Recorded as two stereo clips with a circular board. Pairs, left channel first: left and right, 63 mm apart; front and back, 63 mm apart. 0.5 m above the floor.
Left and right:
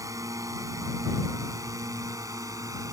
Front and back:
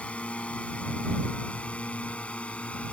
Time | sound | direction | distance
0.0 | a drone | 70° right | ?